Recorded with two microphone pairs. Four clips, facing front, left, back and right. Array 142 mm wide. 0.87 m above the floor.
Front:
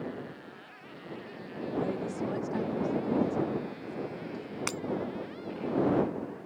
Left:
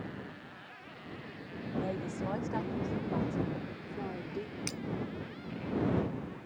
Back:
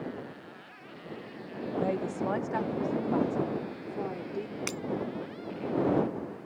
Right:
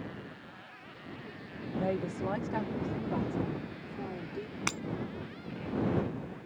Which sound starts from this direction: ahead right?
Breaking glass, at 4.7 s.